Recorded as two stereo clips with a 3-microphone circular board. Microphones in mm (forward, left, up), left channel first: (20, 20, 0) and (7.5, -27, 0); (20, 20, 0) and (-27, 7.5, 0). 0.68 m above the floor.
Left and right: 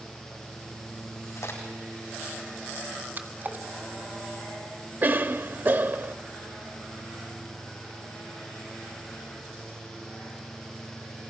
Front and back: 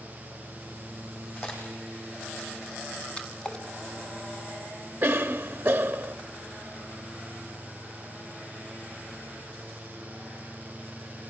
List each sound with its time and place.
1.4 s a crack: 65° left, 10 m
3.2 s a splash: 55° right, 1.8 m
5.0 s a cough: 115° right, 0.8 m